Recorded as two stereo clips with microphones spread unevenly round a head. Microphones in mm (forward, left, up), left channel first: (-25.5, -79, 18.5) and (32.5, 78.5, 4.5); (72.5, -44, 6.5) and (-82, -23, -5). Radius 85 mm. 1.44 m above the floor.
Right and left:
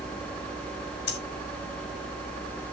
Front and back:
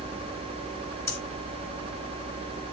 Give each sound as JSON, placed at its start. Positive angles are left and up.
{"t": 1.1, "sound": "breathing", "azimuth_deg": -80, "distance_m": 4.0}